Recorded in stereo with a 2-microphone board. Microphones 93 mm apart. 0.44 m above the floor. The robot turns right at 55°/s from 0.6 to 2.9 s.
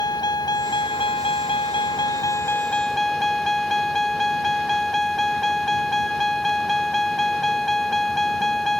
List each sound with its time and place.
0.0 s a vehicle: 50° left; by 8.8 s 175° left